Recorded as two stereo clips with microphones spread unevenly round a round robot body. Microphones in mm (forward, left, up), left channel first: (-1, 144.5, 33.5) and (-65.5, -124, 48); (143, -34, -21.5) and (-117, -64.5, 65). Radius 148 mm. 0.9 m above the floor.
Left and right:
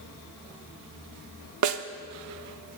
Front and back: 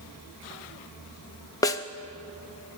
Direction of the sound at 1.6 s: 70° right.